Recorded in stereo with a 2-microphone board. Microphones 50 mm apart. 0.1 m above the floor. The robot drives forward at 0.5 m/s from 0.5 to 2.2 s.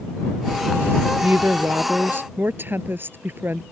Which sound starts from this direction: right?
A woman speaking, at 1.2 s.